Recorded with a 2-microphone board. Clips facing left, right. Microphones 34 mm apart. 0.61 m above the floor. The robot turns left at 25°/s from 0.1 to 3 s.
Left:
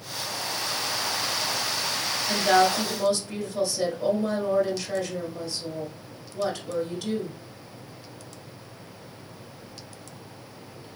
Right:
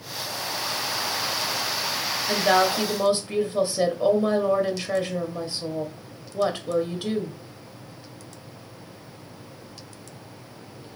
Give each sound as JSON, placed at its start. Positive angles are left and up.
{"t": 2.3, "sound": "a woman speaking", "side_deg": -15, "distance_m": 0.7}